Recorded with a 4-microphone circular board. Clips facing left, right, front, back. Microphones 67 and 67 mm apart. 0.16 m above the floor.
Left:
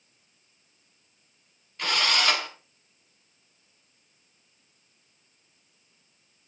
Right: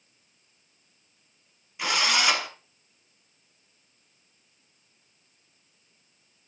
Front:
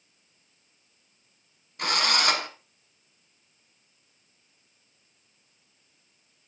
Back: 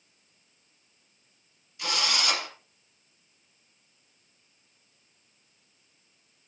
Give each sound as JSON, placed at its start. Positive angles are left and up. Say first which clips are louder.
{"t": 1.8, "sound": "a drill", "louder": "right 1 dB, front 4 dB", "azimuth_deg": -10, "distance_m": 1.8}